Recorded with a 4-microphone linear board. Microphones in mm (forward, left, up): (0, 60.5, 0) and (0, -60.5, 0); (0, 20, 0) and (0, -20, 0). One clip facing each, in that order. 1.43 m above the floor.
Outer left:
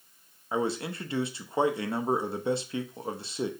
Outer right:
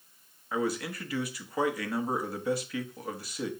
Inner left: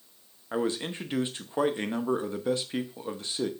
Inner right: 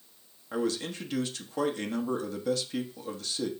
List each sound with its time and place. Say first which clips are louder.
0.5 s a man speaking: outer left 1 dB, inner left 1 dB; 25° left (ahead or behind), 1.0 m